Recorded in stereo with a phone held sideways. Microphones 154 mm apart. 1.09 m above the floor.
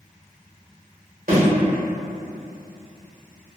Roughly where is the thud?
Right.